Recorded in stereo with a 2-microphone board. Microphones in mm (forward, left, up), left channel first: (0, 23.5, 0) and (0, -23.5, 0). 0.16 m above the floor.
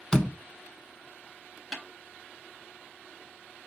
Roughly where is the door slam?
Centre.